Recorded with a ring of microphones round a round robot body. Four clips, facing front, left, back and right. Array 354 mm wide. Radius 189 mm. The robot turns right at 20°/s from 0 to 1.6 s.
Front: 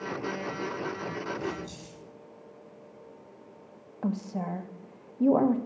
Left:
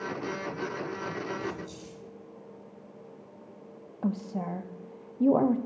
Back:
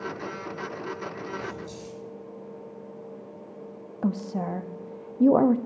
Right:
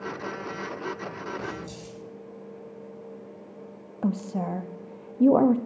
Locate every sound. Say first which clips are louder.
1.4 s keys jangling: right 1 dB, front 1 dB; 60° right, 7.5 m; by 2.0 s 55° right, 7.5 m
4.0 s a woman speaking: right 4 dB, back 3 dB; 140° right, 0.6 m